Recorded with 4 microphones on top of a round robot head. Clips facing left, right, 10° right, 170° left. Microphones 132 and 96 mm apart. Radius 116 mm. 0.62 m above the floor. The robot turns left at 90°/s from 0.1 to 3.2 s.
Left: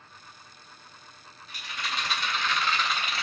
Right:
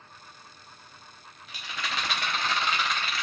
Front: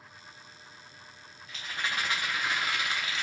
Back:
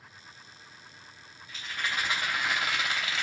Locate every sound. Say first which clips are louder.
1.5 s a rattle: right 1 dB, even; 55° right, 0.9 m; by 3.2 s 150° left, 0.9 m